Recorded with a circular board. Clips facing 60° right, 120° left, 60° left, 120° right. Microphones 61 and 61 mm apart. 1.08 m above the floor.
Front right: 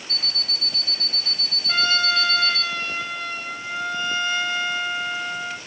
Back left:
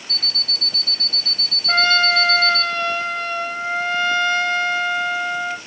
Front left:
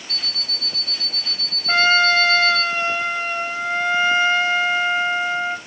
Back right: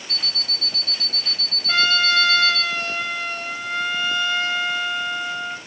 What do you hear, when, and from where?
0.1 s an alarm clock: 150° left, 0.5 m
1.7 s a trumpet: 115° left, 1.2 m